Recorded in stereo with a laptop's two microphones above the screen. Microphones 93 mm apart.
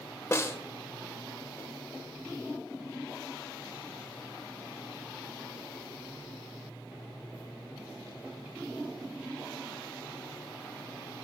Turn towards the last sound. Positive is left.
turn(degrees=30)  # may be behind; listen again after turning